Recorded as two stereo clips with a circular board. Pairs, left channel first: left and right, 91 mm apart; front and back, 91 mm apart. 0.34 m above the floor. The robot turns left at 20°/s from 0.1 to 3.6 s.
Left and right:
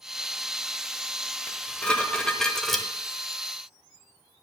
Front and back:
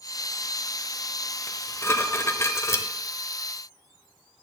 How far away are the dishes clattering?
About 0.9 m.